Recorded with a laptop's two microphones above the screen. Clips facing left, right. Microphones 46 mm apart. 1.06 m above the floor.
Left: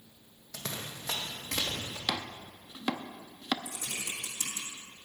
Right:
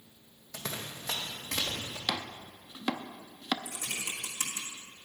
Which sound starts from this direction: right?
Typing on a keyboard, at 3.6 s.